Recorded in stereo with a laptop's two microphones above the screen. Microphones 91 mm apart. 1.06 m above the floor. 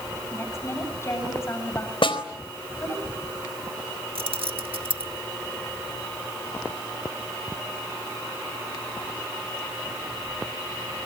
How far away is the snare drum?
About 4 m.